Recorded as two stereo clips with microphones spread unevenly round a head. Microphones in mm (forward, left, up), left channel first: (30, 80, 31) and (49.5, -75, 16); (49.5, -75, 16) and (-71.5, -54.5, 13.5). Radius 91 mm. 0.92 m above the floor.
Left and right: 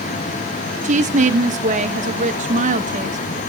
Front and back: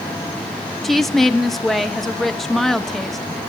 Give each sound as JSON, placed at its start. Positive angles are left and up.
{"t": 0.8, "sound": "a woman speaking", "azimuth_deg": -100, "distance_m": 1.4}